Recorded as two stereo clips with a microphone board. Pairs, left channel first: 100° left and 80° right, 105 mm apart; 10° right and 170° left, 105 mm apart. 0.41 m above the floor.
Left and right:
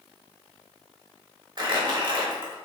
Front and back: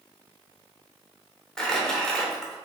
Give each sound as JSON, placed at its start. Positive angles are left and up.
{"t": 1.6, "sound": "crumpling", "azimuth_deg": -95, "distance_m": 0.9}